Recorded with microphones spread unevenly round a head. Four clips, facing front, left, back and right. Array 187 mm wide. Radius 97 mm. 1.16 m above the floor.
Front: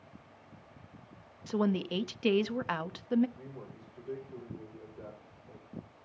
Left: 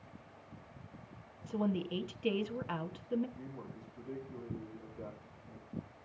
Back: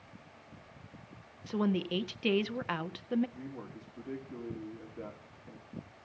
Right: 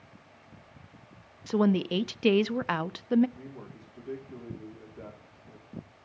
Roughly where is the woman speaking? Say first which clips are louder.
Right 10 dB, front 1 dB; right.